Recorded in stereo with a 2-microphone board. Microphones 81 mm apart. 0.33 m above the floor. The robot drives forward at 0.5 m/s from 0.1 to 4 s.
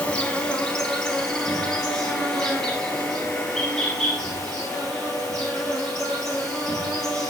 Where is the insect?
15° left (ahead or behind), 0.8 m; by 7.3 s 5° left (ahead or behind), 2.5 m.